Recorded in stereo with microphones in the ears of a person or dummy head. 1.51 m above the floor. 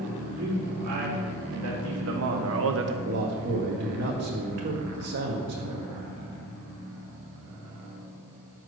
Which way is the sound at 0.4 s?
60° right (ahead or behind).